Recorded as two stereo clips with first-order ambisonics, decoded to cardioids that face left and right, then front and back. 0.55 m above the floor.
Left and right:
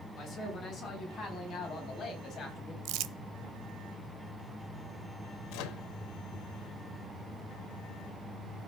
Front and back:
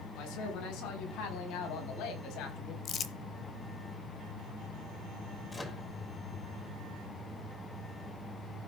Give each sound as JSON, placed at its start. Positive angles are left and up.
{"t": 0.1, "sound": "a man speaking", "azimuth_deg": 25, "distance_m": 5.0}
{"t": 2.9, "sound": "crumpling", "azimuth_deg": -60, "distance_m": 0.9}
{"t": 5.5, "sound": "a microwave", "azimuth_deg": 80, "distance_m": 1.4}